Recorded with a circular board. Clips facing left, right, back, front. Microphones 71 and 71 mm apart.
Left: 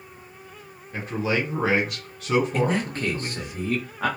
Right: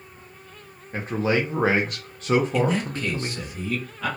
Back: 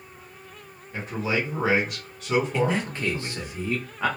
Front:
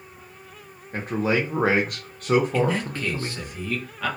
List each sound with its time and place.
0.9 s a man speaking: 40° right, 0.6 m
2.5 s a man speaking: 120° left, 0.8 m